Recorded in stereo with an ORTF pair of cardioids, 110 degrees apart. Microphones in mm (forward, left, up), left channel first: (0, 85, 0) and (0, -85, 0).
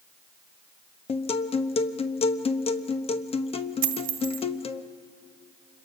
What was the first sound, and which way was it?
A guitar, 35° left.